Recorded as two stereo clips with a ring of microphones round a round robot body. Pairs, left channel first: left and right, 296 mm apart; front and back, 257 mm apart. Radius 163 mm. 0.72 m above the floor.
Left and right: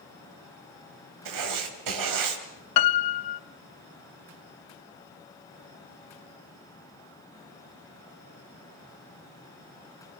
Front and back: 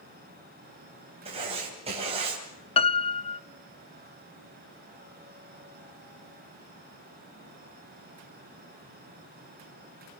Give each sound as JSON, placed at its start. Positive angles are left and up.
{"t": 1.2, "sound": "writing", "azimuth_deg": -110, "distance_m": 3.0}
{"t": 2.8, "sound": "a piano", "azimuth_deg": 70, "distance_m": 0.6}